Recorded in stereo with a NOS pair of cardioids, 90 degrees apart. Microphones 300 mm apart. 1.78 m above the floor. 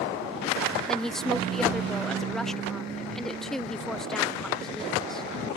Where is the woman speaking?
Straight ahead.